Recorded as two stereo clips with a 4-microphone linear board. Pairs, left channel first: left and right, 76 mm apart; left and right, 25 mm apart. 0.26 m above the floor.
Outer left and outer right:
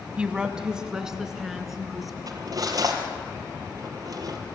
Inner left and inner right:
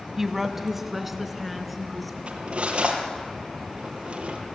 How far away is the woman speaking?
About 1.6 m.